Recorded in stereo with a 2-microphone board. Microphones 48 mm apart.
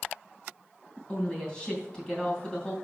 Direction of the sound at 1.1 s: 15° left (ahead or behind).